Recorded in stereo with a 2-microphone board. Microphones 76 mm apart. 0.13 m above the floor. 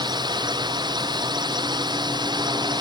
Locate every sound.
0.0 s a drone: 80° right; by 2.8 s 75° right (ahead or behind)